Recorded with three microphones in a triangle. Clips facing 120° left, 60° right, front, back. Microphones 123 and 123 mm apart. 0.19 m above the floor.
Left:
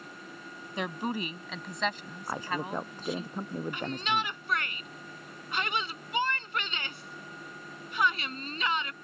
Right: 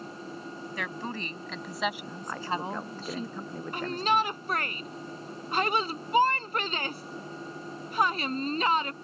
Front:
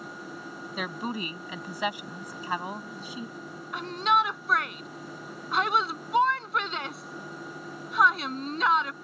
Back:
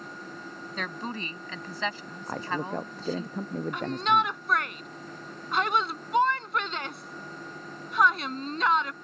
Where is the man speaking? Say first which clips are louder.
Right 1 dB, back 2 dB; 170° right.